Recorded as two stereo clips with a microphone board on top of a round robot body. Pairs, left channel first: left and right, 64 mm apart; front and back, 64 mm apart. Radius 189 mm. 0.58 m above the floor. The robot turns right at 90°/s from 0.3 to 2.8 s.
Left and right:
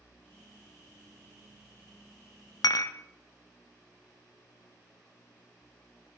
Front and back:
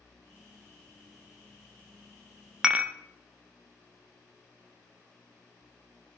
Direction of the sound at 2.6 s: 100° left.